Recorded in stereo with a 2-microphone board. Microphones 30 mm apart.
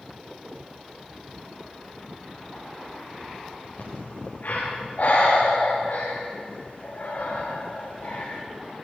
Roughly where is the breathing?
Left.